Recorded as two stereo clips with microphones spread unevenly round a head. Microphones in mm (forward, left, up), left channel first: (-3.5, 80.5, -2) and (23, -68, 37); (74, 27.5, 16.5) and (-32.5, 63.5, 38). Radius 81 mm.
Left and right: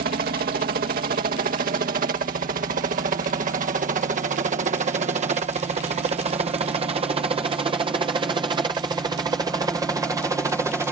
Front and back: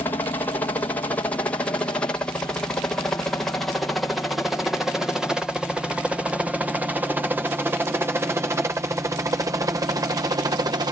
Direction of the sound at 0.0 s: 75° right.